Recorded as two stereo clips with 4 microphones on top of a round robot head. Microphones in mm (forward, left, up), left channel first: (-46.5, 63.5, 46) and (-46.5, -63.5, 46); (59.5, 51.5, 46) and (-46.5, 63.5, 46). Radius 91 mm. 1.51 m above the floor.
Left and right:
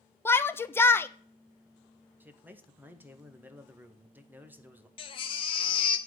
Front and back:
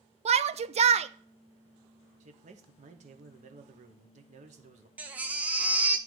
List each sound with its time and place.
0.2 s a shout: 165° left, 0.7 m
2.2 s a man speaking: 165° right, 1.1 m
5.0 s a baby crying: 105° left, 0.7 m